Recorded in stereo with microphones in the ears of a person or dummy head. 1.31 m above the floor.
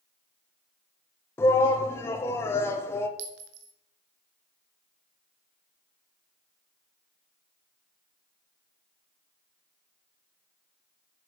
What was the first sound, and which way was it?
A shout, 15° left (ahead or behind).